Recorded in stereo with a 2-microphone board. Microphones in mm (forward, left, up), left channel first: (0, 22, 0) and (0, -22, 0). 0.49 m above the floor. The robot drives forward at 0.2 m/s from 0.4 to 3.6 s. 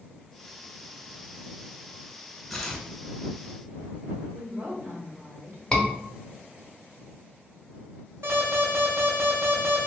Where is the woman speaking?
45° right (ahead or behind), 1.6 m.